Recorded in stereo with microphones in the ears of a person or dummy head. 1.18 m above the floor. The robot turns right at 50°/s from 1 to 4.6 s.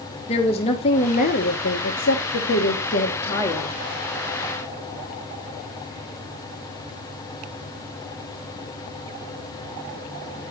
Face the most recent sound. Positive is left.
turn(degrees=-140)